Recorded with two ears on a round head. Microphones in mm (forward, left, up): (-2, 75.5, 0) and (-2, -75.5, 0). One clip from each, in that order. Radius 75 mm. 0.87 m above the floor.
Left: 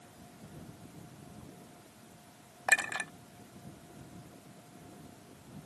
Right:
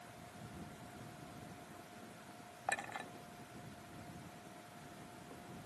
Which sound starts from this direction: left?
A clink, at 2.7 s.